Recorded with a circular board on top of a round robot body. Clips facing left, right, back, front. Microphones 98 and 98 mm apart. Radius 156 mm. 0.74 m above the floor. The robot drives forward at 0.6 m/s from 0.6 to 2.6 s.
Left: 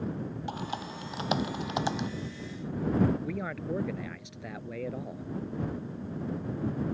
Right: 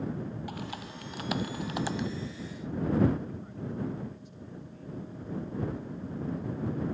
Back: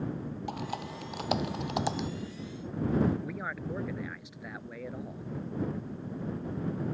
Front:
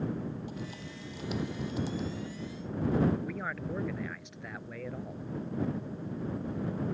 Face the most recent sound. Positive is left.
turn(degrees=95)